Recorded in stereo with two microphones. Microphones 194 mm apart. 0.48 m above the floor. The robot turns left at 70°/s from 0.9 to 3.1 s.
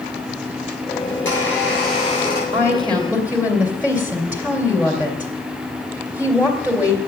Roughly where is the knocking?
No knocking in this recording.